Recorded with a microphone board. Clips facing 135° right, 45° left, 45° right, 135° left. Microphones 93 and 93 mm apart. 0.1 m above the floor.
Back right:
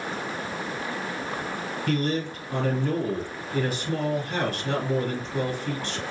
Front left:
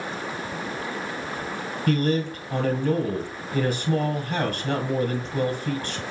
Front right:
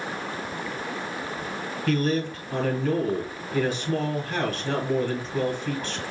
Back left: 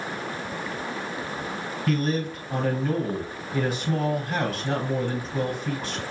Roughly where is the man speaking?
Ahead left.